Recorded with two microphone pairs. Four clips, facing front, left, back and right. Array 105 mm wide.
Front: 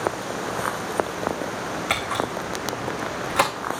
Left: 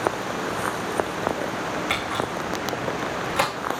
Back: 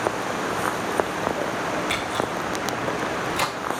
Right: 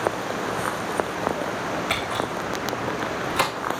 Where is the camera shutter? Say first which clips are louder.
Even, even; 10° left, 4 m.